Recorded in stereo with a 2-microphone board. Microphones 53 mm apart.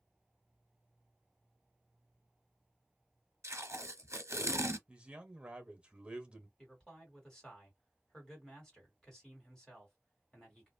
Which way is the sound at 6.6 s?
10° left (ahead or behind).